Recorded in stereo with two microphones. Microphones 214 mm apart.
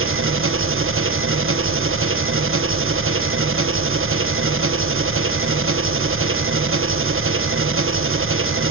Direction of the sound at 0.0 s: 75° right (ahead or behind).